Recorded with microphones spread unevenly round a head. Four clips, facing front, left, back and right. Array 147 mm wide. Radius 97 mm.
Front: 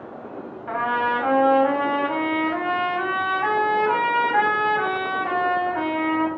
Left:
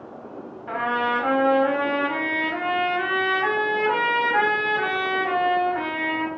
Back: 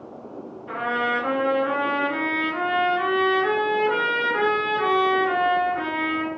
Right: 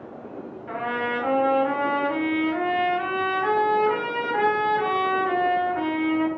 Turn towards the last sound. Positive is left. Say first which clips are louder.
# left 4 dB, front 2 dB
turn(degrees=-35)